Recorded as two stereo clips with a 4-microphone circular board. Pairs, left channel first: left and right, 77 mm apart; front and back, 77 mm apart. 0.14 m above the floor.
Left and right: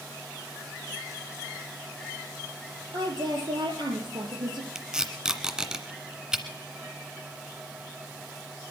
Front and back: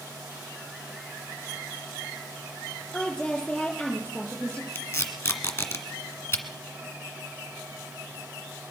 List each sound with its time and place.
2.9 s a woman speaking: 80° right, 4.5 m
4.8 s tape being pulled: 15° right, 1.5 m